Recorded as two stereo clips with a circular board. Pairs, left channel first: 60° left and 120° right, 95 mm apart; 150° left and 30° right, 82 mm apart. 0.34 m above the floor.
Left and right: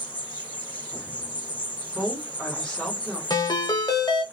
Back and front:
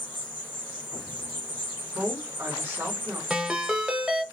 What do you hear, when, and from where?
0.0 s an insect: 15° right, 0.7 m
1.9 s a woman speaking: 15° right, 1.1 m
3.3 s a ringtone: 45° left, 0.6 m